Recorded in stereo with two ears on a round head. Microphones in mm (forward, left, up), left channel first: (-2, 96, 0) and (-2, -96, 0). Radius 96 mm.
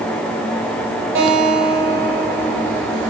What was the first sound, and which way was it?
A guitar, 65° right (ahead or behind).